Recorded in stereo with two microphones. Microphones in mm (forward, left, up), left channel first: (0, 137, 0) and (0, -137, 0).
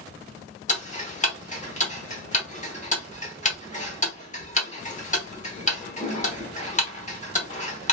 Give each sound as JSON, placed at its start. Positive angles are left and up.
{"t": 0.7, "sound": "ticking", "side_deg": 25, "distance_m": 1.1}